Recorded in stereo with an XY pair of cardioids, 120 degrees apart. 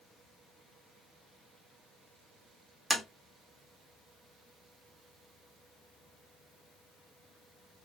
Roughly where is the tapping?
Ahead.